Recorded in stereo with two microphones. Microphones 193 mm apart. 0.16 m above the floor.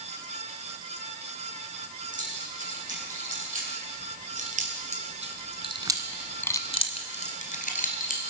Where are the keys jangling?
45° right (ahead or behind), 5.5 m; by 8.2 s 45° left (ahead or behind), 2.5 m.